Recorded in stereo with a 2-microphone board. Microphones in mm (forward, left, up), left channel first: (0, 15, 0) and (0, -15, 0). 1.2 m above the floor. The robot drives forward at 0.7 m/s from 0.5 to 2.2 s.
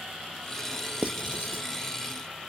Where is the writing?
50° right (ahead or behind), 0.6 m; by 1.7 s 45° right (ahead or behind), 0.7 m.